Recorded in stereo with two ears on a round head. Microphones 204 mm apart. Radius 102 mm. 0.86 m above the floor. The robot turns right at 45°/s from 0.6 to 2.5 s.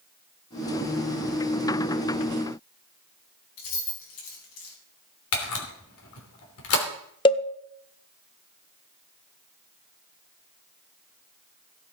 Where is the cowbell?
20° left (ahead or behind), 0.8 m.